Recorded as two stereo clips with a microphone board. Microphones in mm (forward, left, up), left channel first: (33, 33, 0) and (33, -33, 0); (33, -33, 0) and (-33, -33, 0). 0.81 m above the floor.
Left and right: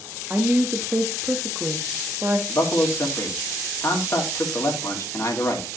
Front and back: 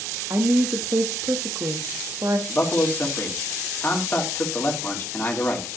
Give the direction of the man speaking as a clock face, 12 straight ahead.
10 o'clock.